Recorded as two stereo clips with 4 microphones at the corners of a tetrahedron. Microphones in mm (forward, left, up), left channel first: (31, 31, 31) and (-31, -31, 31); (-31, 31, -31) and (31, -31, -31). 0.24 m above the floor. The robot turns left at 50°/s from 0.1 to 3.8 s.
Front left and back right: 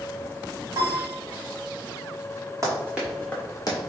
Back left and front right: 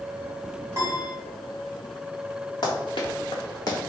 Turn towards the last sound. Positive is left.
turn(degrees=80)